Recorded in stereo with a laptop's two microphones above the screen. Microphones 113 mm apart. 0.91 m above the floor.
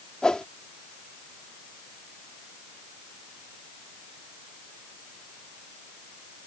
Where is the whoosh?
5° left (ahead or behind).